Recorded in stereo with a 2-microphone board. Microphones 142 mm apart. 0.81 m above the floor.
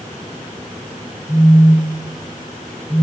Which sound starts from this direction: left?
A phone buzzing, at 1.3 s.